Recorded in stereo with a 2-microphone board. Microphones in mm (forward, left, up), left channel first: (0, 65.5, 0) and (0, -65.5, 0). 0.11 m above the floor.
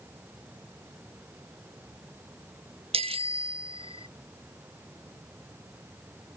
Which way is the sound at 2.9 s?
50° right (ahead or behind).